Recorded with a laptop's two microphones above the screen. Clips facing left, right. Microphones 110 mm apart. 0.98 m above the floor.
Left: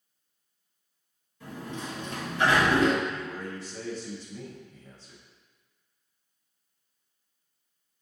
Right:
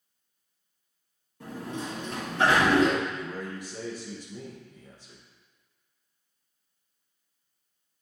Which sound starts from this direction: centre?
A man speaking, at 3.0 s.